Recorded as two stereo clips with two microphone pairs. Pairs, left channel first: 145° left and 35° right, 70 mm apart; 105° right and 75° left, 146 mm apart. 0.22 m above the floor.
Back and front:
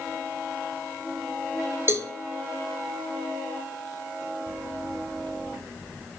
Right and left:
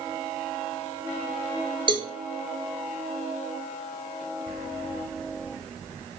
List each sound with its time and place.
1.9 s a cowbell: 20° left, 1.4 m